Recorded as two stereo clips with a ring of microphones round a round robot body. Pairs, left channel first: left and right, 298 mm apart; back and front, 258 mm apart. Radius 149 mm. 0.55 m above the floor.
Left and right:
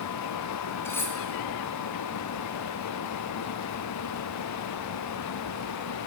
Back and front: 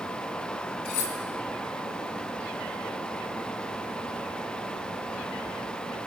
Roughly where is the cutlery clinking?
Behind.